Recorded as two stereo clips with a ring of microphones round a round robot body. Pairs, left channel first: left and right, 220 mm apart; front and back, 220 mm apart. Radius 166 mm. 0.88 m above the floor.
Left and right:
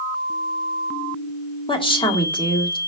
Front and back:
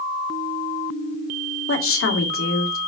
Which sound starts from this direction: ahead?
A woman speaking, at 1.7 s.